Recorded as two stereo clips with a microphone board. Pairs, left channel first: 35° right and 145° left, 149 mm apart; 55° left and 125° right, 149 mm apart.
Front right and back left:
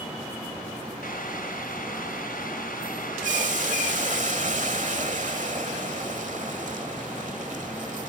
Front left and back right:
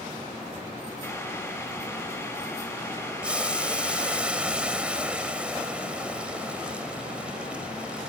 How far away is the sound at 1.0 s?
About 4.5 m.